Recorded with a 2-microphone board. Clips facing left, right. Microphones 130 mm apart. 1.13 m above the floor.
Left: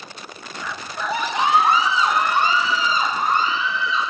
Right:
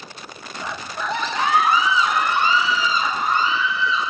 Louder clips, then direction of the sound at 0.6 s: Even; 25° right (ahead or behind).